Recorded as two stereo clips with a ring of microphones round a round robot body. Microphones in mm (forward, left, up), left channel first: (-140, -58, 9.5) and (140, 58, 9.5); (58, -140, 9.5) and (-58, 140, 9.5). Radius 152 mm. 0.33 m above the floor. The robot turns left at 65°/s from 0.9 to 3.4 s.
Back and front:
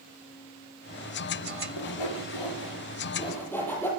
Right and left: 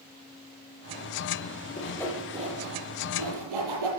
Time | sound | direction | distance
1.8 | sawing | 135° right | 9 m